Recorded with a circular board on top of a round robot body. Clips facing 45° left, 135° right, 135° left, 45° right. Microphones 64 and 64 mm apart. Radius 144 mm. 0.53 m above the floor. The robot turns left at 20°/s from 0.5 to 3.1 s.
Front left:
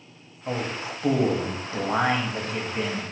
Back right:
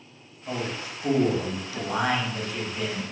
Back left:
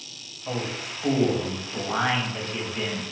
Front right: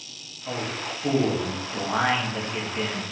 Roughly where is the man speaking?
Ahead left.